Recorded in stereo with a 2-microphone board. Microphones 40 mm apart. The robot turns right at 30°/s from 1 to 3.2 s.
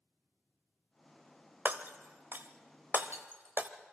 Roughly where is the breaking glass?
Right.